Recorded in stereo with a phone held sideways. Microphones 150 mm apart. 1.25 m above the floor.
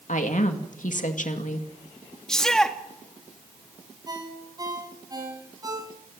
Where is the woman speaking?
60° left (ahead or behind), 2 m.